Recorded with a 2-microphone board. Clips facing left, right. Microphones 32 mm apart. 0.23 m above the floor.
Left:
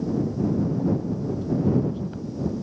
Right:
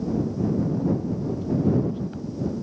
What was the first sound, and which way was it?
Only background noise.